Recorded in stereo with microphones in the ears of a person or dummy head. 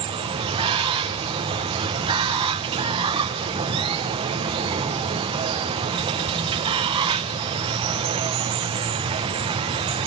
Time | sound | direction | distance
0.0 | running water | 20° right (ahead or behind) | 1.0 m